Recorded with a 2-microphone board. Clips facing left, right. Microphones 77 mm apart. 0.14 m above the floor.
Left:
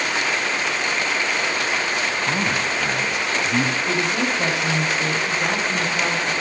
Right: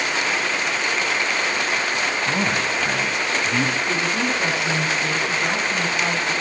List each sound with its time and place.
2.3 s a man speaking: 5° left (ahead or behind), 1.7 m
3.9 s a woman speaking: 75° left (ahead or behind), 8.5 m